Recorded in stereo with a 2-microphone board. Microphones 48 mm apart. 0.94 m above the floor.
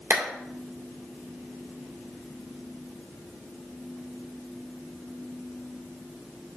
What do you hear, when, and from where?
0.1 s a clap: 55° right (ahead or behind), 2.5 m